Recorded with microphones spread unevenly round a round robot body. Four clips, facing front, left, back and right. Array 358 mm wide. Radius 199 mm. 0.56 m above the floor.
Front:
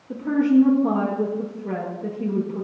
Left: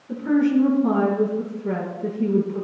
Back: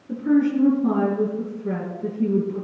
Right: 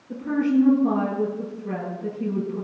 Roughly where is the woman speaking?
Behind left.